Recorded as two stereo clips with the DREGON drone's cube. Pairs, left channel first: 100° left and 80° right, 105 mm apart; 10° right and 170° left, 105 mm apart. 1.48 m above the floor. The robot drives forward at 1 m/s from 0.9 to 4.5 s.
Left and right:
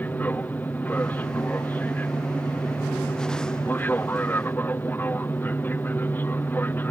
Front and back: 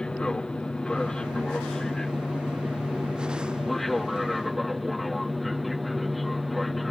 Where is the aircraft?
60° left; by 6.9 s 75° left.